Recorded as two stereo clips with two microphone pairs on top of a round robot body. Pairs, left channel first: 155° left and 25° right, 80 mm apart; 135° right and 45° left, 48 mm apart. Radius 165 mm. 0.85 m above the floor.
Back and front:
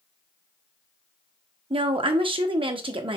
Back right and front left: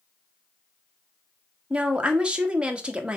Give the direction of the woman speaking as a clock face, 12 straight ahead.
1 o'clock.